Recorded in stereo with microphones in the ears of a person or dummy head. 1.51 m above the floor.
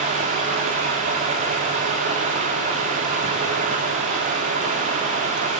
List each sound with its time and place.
0.0 s running water: 35° right (ahead or behind), 1.6 m